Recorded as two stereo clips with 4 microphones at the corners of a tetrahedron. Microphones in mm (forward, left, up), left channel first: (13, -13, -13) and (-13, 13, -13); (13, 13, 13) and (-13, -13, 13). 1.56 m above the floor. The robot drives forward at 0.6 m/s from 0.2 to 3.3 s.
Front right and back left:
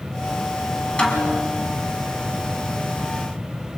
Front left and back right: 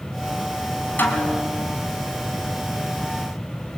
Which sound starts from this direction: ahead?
A snare drum, at 1.0 s.